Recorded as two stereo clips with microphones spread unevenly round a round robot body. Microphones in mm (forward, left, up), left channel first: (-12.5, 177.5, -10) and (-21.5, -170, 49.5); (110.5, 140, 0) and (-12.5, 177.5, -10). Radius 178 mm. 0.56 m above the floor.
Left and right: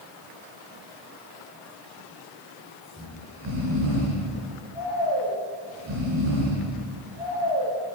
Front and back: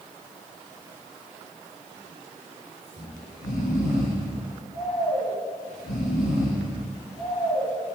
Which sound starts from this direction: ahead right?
Snoring, at 3.0 s.